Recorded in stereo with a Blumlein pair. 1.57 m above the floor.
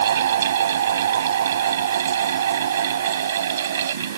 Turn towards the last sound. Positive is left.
turn(degrees=-60)